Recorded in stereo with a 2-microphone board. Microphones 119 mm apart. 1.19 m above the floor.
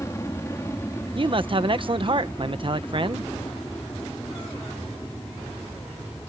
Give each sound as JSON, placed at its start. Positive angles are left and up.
{"t": 0.0, "sound": "an aircraft", "side_deg": 25}
{"t": 1.1, "sound": "a man speaking", "side_deg": -45}